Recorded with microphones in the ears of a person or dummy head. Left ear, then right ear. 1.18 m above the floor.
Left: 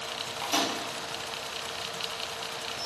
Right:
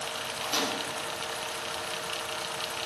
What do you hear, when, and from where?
0.4 s a microwave: 20° left (ahead or behind), 0.6 m